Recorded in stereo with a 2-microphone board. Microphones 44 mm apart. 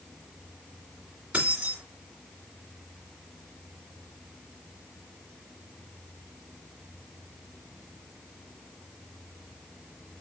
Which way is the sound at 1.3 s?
25° right (ahead or behind).